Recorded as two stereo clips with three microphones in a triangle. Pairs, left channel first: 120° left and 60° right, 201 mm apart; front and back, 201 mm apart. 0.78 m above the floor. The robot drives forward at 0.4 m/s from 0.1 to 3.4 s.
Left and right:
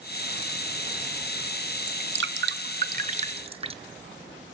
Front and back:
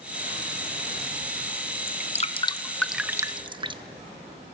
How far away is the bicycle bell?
No bicycle bell in this recording.